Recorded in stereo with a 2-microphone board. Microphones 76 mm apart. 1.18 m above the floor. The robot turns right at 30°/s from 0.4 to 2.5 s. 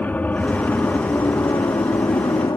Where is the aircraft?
25° left; by 2.6 s 90° left.